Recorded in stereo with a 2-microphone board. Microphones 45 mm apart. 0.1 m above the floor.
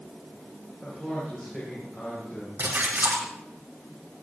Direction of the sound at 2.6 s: 55° right (ahead or behind).